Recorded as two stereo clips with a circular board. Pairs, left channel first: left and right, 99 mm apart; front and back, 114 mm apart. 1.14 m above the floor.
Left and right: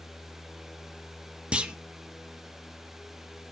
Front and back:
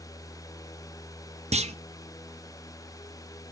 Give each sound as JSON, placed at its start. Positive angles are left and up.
{"t": 1.5, "sound": "a clunk", "azimuth_deg": -170, "distance_m": 0.6}